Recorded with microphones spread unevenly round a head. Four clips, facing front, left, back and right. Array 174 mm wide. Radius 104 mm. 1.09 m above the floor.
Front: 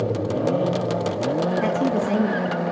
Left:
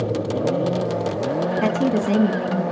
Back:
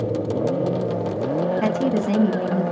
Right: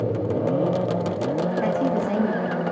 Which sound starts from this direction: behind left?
A woman speaking, at 1.6 s.